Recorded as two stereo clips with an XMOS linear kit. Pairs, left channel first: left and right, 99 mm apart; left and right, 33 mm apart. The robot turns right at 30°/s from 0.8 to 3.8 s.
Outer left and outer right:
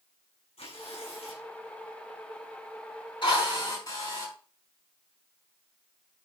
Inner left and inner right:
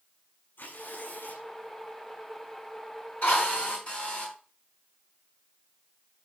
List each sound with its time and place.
0.6 s tearing paper: 75° left (ahead or behind), 6 m; by 1.5 s 80° left, 6 m
3.2 s a drill: 50° left (ahead or behind), 6 m; by 4.3 s 35° left (ahead or behind), 6 m